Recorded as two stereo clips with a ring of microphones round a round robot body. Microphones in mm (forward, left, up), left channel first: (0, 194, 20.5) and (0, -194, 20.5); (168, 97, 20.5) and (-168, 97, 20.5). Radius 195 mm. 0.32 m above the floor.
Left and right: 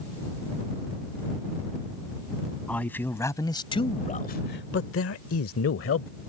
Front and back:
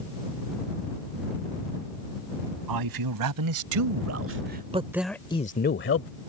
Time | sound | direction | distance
2.7 | a man speaking | 175° left | ?